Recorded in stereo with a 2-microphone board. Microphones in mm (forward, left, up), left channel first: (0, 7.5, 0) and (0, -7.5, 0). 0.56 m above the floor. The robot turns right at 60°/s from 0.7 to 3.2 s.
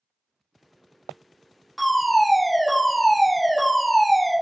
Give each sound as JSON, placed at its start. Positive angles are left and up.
{"t": 1.8, "sound": "a fire alarm", "side_deg": 15, "distance_m": 1.6}